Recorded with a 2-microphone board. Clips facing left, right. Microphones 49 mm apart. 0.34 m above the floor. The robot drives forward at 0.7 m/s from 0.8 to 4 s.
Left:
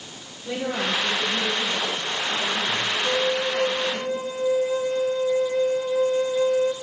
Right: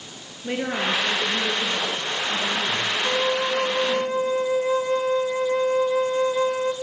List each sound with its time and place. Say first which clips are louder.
0.4 s a woman speaking: right 1 dB; 50° right (ahead or behind), 7.5 m; by 4.0 s 40° right (ahead or behind), 9 m
3.0 s a flute: right 1 dB; 60° right (ahead or behind), 1.5 m; by 6.7 s 70° right (ahead or behind), 1.4 m